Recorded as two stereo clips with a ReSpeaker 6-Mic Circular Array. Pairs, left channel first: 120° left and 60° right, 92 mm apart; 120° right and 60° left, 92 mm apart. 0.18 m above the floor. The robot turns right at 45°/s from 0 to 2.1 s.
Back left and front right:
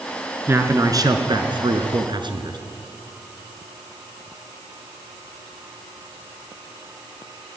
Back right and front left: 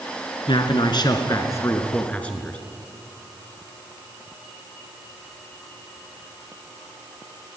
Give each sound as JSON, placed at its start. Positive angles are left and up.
{"t": 0.5, "sound": "a man speaking", "azimuth_deg": -120, "distance_m": 2.5}